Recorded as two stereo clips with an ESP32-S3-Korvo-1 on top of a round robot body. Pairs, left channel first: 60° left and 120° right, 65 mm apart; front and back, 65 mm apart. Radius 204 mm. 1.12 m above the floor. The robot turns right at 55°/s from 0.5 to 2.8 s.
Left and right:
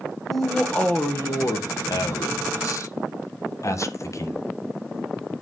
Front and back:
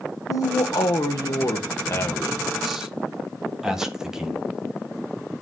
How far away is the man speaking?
About 1.4 m.